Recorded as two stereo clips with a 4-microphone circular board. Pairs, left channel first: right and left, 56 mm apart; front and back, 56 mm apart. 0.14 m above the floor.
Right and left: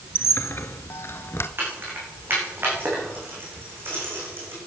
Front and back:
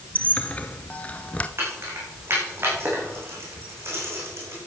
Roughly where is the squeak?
Ahead right.